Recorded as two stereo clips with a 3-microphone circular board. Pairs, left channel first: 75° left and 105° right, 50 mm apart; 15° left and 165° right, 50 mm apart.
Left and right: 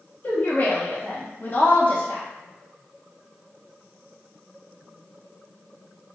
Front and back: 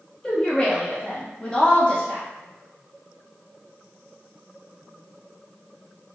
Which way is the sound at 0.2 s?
75° left.